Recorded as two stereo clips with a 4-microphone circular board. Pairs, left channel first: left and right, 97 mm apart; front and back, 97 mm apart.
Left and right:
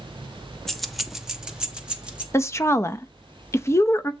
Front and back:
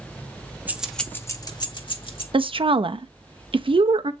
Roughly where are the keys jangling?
Behind.